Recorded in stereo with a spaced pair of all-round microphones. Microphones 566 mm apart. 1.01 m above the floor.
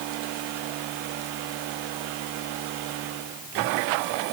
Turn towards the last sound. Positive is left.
No sound to turn to.